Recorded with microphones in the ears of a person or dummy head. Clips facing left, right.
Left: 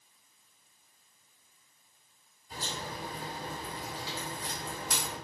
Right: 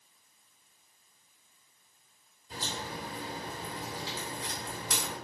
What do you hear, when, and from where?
2.5 s a crack: 55° right (ahead or behind), 1.9 m